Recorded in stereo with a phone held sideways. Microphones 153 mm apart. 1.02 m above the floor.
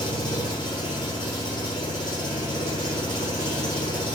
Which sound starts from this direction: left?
An engine running, at 0.0 s.